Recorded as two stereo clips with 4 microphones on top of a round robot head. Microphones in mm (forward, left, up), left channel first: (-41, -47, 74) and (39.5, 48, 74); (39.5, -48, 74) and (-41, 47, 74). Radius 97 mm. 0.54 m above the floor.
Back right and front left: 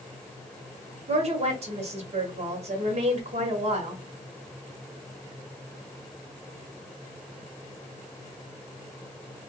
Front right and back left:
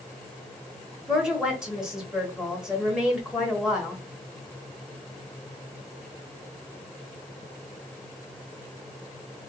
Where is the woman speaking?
45° left, 1.2 m.